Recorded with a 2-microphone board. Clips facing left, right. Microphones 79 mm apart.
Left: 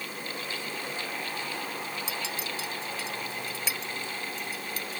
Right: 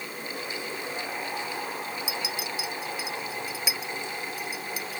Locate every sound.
2.1 s a clink: 10° right (ahead or behind)